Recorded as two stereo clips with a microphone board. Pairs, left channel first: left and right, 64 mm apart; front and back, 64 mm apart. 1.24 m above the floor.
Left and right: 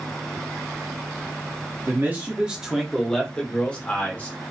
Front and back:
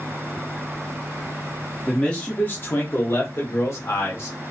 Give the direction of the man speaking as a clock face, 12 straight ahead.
2 o'clock.